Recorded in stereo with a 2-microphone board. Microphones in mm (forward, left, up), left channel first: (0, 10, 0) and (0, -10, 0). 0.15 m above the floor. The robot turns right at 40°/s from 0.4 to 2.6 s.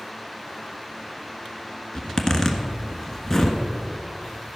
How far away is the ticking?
I don't hear ticking.